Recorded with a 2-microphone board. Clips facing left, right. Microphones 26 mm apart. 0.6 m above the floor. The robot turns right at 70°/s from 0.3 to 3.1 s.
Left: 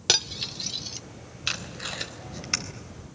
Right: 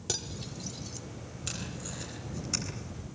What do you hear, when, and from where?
0.1 s cutlery clinking: 65° left (ahead or behind), 0.7 m; by 1.0 s 45° left (ahead or behind), 0.7 m
1.5 s tape being pulled: 50° left (ahead or behind), 3.5 m; by 2.6 s 45° left (ahead or behind), 3.5 m